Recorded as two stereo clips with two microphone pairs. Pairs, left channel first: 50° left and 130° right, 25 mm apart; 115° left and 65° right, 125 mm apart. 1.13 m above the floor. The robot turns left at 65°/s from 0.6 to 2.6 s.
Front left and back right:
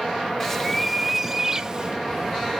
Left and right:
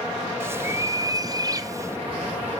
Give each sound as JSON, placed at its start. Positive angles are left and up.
{"t": 0.4, "sound": "a bird", "azimuth_deg": -15, "distance_m": 0.6}